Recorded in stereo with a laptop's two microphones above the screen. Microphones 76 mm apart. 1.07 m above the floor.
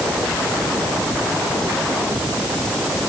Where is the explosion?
No explosion in this recording.